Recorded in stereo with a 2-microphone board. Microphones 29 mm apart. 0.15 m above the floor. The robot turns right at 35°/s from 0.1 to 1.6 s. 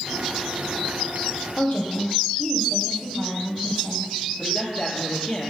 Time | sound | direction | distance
1.6 | a woman speaking | 50° left (ahead or behind) | 3.5 m
4.4 | a man speaking | 30° left (ahead or behind) | 3.5 m